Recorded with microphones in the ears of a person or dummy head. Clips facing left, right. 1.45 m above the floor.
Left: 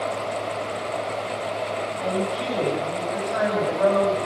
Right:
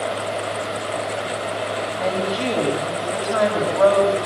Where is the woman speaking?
75° right (ahead or behind), 7 m.